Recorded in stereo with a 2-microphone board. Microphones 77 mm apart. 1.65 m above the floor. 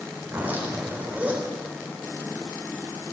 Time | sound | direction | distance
0.2 | a zipper | 20° right (ahead or behind) | 3.5 m